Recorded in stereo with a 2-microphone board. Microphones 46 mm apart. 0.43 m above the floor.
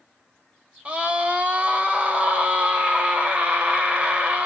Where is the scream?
30° right (ahead or behind), 2.5 m.